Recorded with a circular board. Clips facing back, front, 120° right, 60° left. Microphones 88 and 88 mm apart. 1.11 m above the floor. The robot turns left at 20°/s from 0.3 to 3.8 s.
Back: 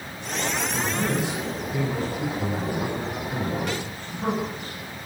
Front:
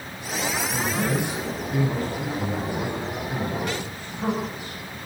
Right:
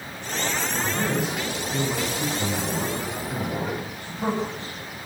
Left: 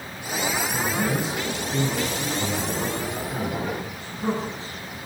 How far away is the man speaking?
About 9 m.